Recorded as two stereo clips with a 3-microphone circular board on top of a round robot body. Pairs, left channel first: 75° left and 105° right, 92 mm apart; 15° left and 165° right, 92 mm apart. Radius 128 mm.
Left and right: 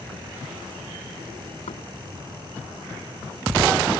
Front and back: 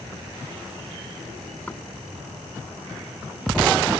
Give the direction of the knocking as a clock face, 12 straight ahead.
9 o'clock.